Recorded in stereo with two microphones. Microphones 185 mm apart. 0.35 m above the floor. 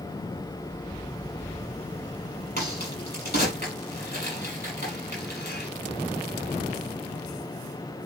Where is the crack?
55° left (ahead or behind), 6.5 m.